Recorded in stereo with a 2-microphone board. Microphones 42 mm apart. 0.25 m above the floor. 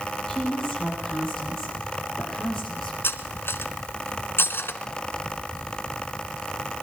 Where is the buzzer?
I don't hear a buzzer.